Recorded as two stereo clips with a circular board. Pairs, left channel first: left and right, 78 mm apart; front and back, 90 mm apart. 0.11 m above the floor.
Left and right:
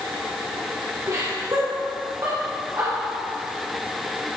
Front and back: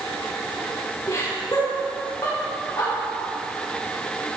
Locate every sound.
1.1 s laughter: 50° right, 4 m; by 2.9 s 45° right, 7 m